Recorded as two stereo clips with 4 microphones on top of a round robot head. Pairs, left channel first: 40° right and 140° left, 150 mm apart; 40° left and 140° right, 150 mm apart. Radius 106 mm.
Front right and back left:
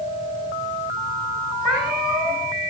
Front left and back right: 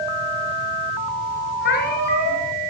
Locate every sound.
1.6 s a cat meowing: 50° left, 3 m